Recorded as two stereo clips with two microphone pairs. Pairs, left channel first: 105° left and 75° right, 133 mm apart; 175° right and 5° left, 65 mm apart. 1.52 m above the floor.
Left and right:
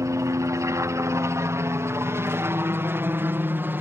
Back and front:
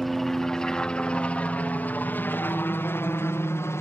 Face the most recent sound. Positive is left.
turn(degrees=-145)